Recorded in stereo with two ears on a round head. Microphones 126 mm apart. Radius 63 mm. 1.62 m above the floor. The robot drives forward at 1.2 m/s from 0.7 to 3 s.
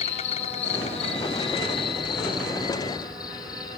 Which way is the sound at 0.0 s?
50° left (ahead or behind).